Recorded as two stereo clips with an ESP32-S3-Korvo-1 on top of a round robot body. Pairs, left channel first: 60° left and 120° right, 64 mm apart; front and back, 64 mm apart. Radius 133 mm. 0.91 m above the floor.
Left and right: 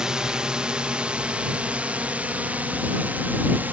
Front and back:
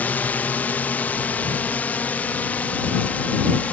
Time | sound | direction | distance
0.0 | a drone | 45° right | ?